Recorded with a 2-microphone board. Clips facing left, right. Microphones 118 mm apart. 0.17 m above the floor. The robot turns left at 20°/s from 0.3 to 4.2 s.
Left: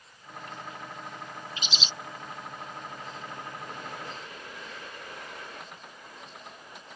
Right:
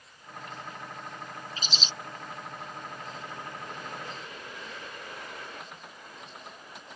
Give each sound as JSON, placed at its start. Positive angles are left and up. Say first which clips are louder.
{"t": 1.6, "sound": "a bird", "louder": "even", "side_deg": -40}